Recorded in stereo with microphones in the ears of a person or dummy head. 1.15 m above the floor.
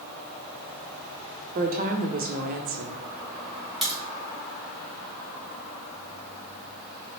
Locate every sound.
1.6 s a woman speaking: 45° right (ahead or behind), 0.6 m
3.8 s a crack: centre (ahead or behind), 2 m